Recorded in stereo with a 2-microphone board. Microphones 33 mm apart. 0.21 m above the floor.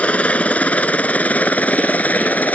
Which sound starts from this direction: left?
A helicopter, at 0.0 s.